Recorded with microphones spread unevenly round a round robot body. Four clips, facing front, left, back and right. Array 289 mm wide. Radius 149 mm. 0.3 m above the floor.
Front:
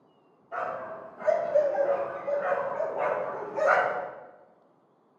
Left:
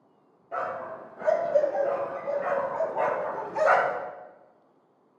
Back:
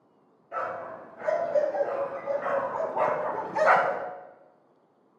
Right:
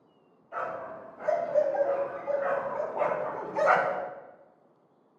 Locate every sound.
0.5 s a dog barking: 100° left, 3 m; by 4.1 s 155° right, 1.1 m